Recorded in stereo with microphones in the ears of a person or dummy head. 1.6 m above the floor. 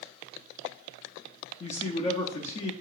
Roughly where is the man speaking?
Left.